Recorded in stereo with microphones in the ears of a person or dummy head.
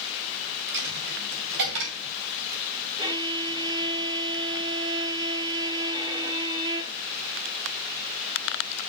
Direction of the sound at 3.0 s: 20° right (ahead or behind).